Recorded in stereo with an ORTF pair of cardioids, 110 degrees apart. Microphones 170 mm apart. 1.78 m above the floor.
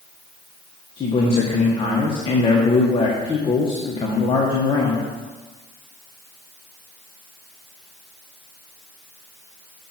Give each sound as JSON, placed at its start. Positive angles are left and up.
{"t": 1.0, "sound": "a man speaking", "azimuth_deg": 30, "distance_m": 1.7}